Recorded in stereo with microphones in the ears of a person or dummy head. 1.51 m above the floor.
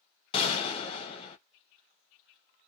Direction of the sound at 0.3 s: 35° left (ahead or behind).